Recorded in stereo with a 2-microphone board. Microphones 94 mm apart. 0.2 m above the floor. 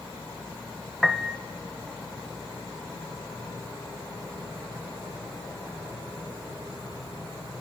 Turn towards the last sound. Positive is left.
turn(degrees=0)  # may be behind; listen again after turning